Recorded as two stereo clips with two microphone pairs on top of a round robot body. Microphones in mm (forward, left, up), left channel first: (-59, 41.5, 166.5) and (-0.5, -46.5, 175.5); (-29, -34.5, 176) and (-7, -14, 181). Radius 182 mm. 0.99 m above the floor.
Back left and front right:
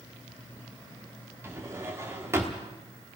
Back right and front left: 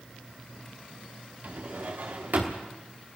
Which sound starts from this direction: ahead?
A drawer, at 1.4 s.